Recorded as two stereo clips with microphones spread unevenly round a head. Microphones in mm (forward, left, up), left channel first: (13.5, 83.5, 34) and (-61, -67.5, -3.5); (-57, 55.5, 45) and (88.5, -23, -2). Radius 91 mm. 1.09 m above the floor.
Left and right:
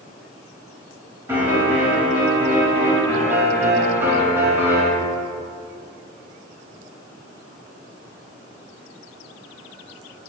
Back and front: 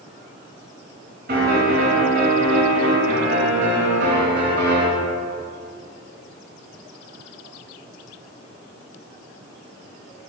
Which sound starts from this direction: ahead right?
A piano, at 1.3 s.